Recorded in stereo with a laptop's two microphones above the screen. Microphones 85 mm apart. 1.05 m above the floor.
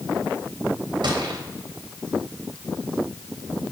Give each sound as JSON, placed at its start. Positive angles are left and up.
{"t": 1.0, "sound": "a gunshot", "side_deg": -75, "distance_m": 3.0}